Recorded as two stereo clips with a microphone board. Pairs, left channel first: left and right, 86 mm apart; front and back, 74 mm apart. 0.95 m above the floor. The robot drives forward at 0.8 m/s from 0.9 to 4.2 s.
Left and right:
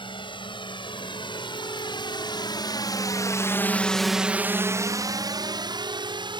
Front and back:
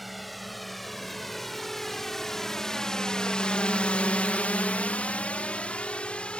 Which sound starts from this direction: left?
A drone, at 0.0 s.